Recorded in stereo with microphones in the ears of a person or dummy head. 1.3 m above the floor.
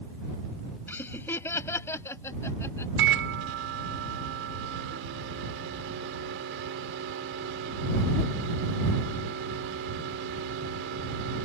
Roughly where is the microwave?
Right.